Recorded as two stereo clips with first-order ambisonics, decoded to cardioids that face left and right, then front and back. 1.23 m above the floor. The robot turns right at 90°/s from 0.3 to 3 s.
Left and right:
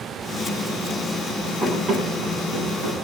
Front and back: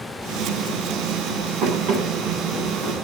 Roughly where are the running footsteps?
Behind.